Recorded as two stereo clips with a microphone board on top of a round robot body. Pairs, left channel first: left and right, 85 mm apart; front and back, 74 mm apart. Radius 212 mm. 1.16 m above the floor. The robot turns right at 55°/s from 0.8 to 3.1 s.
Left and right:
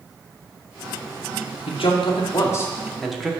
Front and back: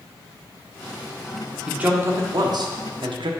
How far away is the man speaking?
About 1.0 m.